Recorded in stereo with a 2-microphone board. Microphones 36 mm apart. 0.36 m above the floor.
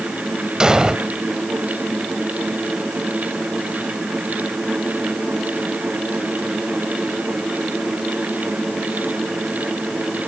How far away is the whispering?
No whispering in this recording.